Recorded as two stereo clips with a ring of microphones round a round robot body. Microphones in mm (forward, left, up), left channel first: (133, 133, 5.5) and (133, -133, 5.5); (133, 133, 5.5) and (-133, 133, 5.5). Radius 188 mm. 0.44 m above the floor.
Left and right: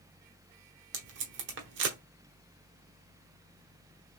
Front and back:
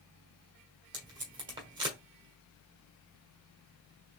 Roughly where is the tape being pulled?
Right.